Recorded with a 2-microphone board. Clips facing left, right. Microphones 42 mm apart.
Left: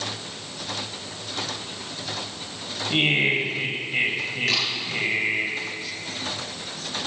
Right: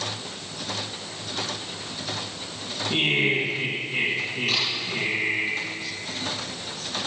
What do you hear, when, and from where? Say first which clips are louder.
2.9 s laughter: left 1 dB; 20° left (ahead or behind), 2.5 m
4.5 s a camera shutter: left 1 dB; 75° left (ahead or behind), 6.5 m